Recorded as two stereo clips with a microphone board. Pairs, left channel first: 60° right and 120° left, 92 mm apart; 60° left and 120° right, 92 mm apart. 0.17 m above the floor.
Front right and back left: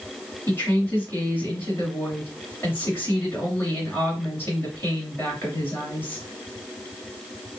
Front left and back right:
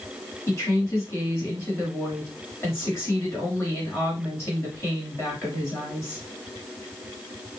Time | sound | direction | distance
0.5 | a woman speaking | 5° left | 2.5 m